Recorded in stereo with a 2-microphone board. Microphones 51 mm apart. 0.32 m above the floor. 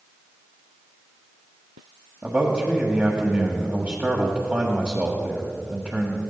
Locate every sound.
2.2 s a man speaking: 30° right (ahead or behind), 1.4 m